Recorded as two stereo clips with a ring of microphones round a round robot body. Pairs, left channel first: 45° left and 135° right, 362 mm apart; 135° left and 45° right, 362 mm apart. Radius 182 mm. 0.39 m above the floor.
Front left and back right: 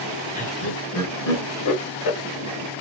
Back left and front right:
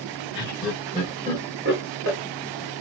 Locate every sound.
0.3 s laughter: 75° left, 0.9 m; by 2.2 s 5° left, 1.8 m